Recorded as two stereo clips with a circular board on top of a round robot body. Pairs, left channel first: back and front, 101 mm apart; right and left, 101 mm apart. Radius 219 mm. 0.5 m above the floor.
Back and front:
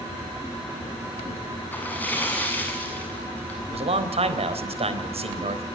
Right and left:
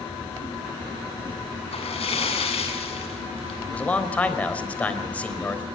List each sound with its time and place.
1.7 s a splash: 105° right, 7.5 m
3.7 s a man speaking: 15° right, 4 m